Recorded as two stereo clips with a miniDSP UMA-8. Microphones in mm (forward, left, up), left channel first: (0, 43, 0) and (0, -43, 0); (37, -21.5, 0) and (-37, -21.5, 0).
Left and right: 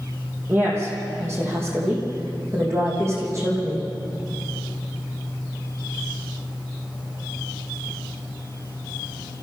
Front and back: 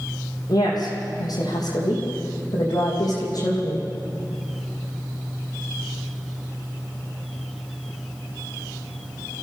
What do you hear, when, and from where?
0.5 s a woman speaking: 30° right, 5.5 m; by 3.9 s 35° right, 7.5 m